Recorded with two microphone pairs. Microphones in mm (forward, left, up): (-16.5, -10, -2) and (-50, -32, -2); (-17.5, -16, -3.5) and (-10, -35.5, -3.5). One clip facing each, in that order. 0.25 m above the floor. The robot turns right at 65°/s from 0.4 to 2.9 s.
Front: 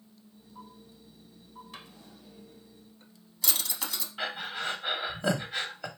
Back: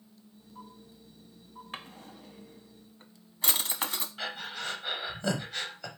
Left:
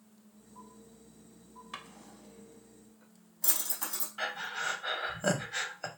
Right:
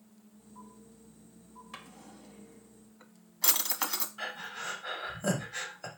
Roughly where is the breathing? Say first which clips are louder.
Front 6 dB, left 4 dB; left.